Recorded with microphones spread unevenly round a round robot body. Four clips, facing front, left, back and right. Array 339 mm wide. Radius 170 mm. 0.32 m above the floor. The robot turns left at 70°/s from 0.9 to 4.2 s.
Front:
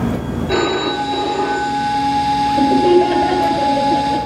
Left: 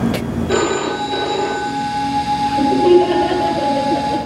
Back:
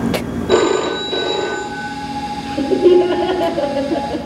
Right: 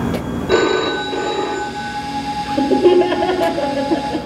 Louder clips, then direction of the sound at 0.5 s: Right 3 dB, back 4 dB; 155° right.